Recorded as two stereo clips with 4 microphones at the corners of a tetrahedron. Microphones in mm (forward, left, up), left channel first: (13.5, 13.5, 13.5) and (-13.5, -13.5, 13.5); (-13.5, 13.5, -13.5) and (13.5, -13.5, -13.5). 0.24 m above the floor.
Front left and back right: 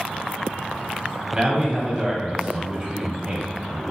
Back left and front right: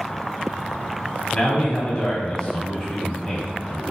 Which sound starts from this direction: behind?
A man speaking, at 1.3 s.